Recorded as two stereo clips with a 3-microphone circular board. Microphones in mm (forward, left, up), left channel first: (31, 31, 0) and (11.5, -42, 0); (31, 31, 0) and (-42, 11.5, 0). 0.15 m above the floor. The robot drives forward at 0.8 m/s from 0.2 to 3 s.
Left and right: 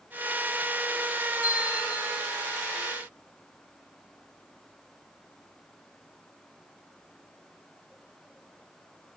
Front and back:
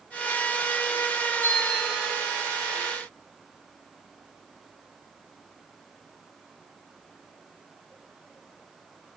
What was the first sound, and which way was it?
A bell, 75° left.